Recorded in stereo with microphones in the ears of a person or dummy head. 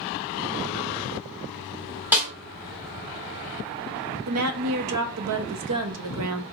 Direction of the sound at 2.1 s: 10° right (ahead or behind).